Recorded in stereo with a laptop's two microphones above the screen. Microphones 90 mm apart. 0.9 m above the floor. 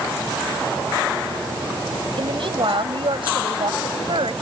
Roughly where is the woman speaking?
Right.